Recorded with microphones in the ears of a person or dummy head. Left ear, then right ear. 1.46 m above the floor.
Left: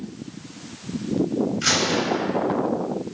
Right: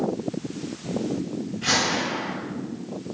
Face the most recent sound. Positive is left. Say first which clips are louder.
# even
turn(degrees=50)  # may be behind; listen again after turning